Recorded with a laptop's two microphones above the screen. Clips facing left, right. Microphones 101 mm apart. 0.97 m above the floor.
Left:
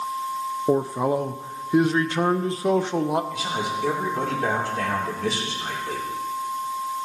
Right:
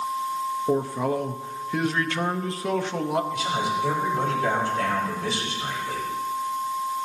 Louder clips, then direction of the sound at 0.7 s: Left 4 dB; 20° left (ahead or behind).